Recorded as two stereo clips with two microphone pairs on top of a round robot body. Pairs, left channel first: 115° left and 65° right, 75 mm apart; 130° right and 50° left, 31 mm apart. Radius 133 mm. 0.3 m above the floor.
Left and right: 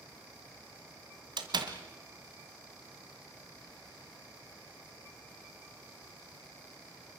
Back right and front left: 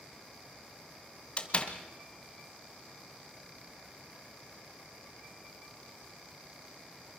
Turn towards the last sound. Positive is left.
turn(degrees=-80)